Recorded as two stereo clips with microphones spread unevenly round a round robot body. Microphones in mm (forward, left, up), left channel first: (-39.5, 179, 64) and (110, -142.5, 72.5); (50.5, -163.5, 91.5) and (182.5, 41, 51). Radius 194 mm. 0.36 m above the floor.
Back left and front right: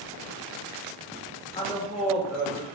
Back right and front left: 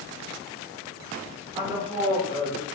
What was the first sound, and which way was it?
A woman speaking, 65° left.